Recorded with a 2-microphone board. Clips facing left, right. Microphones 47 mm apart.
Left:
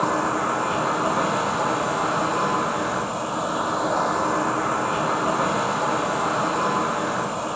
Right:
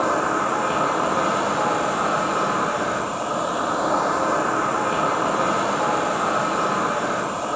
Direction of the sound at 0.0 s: 45° right (ahead or behind).